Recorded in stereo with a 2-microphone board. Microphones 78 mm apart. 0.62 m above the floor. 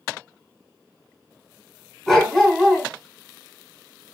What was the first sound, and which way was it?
A dog barking, 5° left (ahead or behind).